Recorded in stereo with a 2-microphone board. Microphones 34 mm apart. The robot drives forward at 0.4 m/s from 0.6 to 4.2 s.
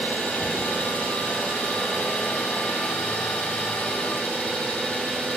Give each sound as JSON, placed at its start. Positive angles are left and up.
{"t": 0.0, "sound": "an engine running", "side_deg": 75, "distance_m": 2.5}